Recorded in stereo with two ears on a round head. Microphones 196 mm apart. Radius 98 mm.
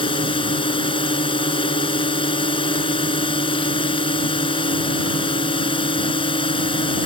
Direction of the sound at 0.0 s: 25° left (ahead or behind).